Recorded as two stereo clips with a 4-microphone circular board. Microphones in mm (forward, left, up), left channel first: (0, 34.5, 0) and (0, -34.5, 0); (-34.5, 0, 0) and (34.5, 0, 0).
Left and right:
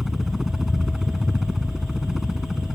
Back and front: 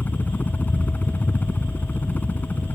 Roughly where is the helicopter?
Behind.